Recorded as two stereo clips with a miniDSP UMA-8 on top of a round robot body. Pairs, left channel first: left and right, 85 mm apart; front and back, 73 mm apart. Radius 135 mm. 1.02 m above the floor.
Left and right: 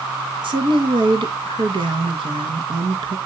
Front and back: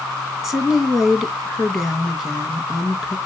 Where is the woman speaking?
95° right, 2 m.